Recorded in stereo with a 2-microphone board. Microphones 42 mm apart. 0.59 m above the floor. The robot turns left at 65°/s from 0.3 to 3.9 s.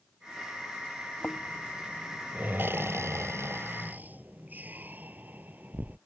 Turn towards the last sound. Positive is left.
turn(degrees=-45)  # may be behind; listen again after turning